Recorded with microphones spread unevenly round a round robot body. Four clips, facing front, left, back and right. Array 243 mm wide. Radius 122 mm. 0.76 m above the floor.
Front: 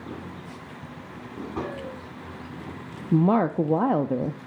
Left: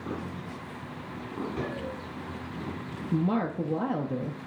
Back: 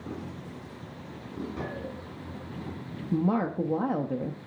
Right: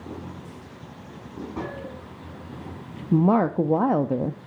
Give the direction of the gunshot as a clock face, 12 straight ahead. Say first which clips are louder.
Right 1 dB, front 4 dB; 1 o'clock.